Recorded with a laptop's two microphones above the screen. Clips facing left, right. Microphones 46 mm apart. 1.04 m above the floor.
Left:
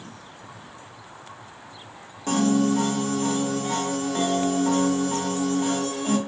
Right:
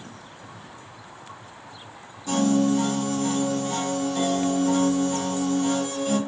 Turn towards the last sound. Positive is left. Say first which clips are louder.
# even
turn(degrees=55)  # may be behind; listen again after turning